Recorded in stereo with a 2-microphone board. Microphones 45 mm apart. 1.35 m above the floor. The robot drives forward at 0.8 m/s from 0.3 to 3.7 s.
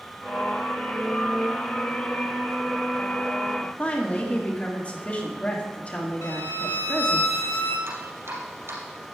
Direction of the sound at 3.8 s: 30° left (ahead or behind).